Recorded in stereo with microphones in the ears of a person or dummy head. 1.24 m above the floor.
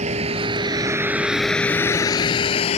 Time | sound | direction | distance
0.0 | a vehicle | 40° right (ahead or behind) | ?